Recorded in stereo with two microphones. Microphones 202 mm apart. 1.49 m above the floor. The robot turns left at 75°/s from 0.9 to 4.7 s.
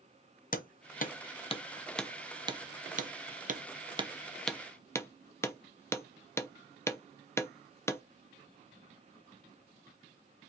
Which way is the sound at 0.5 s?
45° left (ahead or behind).